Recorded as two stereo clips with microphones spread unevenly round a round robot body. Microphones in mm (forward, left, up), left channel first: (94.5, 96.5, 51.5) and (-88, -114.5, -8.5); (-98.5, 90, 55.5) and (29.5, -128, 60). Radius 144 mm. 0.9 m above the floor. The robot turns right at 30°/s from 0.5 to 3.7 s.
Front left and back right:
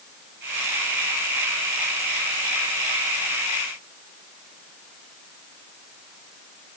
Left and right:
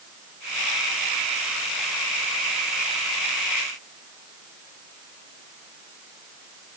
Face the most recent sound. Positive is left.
No sound to turn to.